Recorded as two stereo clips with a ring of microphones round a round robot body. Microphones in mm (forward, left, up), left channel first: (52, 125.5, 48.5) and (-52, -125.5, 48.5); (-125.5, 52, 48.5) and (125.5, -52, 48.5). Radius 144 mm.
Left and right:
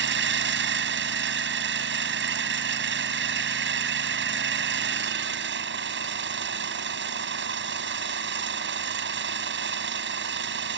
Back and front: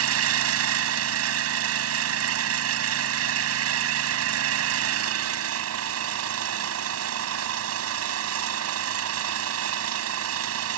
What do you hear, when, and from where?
0.0 s an engine running: 60° right